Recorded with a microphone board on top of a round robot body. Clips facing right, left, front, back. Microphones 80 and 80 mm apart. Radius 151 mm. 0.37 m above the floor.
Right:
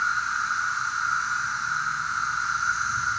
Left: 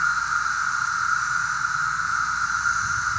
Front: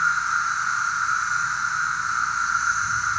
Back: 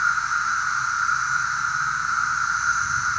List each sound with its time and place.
0.0 s an insect: 95° left, 8.5 m